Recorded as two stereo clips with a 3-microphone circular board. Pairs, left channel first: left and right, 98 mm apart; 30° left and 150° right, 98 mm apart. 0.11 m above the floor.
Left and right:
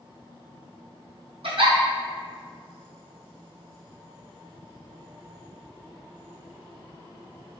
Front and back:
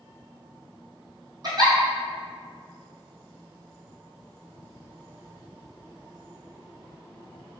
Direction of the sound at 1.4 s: 105° right.